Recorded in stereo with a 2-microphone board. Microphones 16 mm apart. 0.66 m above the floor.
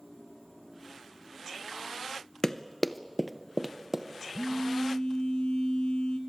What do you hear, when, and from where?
2.4 s running footsteps: 35° left (ahead or behind), 0.7 m; by 4.0 s 25° right (ahead or behind), 1.6 m
4.3 s a phone buzzing: 65° left (ahead or behind), 3 m